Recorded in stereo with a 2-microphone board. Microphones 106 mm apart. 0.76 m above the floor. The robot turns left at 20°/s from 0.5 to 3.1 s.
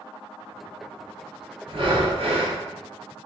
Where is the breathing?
50° right (ahead or behind), 0.7 m; by 2.6 s 65° right (ahead or behind), 0.7 m.